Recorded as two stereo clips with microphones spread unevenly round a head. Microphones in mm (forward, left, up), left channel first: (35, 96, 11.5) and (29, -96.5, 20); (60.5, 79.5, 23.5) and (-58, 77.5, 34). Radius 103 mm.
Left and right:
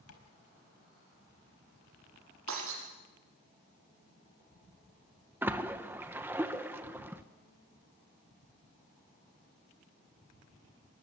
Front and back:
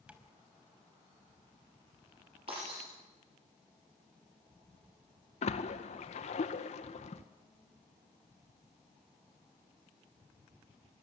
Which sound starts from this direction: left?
Tapping, at 0.1 s.